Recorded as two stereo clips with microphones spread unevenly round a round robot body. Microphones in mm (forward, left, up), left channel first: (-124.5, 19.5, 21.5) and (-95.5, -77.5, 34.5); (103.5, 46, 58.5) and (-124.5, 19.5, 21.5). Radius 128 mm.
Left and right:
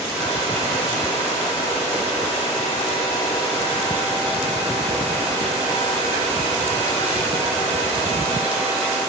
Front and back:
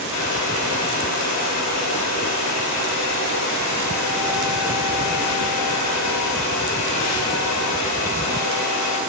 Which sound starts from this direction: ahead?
A hair dryer, at 0.1 s.